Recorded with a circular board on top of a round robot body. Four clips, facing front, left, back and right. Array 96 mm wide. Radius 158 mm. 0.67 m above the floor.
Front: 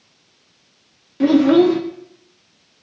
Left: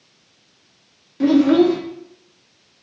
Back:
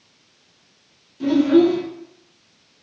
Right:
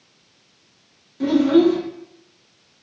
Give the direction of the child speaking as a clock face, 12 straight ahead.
11 o'clock.